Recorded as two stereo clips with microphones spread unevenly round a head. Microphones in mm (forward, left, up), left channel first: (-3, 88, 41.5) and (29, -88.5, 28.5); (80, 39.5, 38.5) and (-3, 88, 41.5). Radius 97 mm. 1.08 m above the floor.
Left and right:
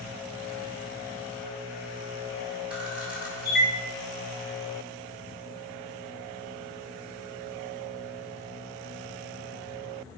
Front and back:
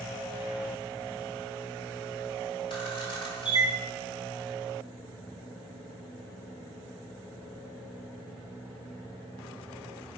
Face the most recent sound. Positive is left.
turn(degrees=5)